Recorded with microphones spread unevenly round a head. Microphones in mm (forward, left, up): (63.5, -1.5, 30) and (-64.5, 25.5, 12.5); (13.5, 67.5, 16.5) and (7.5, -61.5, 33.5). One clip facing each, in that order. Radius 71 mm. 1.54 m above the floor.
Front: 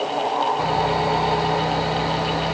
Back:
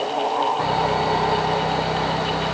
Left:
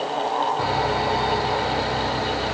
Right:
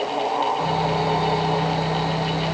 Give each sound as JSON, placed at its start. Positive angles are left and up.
{"t": 0.6, "sound": "sawing", "azimuth_deg": 65, "distance_m": 3.0}